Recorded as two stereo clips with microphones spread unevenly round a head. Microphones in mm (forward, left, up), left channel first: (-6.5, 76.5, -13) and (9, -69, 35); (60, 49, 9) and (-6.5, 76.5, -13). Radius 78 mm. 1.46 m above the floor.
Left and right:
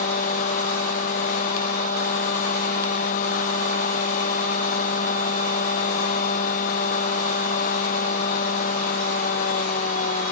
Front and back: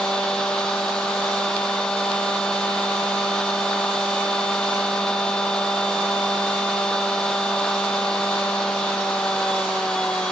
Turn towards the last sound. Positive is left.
turn(degrees=55)